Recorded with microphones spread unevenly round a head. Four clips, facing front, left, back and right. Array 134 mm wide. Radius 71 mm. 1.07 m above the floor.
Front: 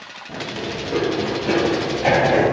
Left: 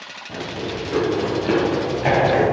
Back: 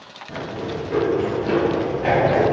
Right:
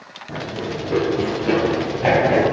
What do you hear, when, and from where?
0.3 s running footsteps: 105° right, 3 m; by 2.4 s 75° right, 5 m